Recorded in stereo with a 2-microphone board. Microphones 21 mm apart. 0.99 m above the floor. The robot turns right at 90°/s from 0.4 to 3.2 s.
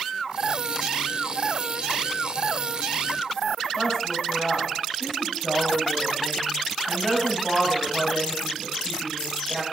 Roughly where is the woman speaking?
Centre.